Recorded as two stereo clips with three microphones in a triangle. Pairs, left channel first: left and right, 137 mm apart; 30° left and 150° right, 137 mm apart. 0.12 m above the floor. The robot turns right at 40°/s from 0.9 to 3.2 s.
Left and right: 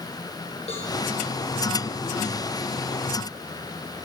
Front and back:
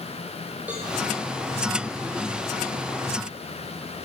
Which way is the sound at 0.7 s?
130° left.